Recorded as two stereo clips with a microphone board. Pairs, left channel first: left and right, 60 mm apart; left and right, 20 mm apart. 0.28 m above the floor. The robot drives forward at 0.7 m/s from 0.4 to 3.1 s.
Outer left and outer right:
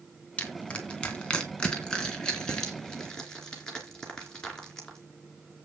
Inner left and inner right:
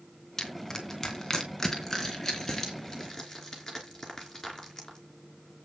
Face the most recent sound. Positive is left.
turn(degrees=10)  # may be behind; listen again after turning